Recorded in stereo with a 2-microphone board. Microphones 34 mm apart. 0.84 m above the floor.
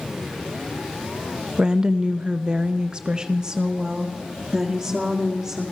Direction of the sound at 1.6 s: 15° right (ahead or behind).